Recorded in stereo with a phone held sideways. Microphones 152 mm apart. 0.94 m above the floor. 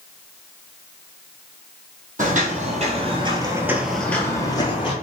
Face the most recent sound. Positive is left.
turn(degrees=35)  # may be behind; listen again after turning